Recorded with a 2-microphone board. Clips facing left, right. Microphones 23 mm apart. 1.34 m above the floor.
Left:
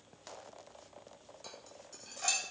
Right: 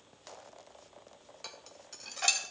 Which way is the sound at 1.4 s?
40° right (ahead or behind).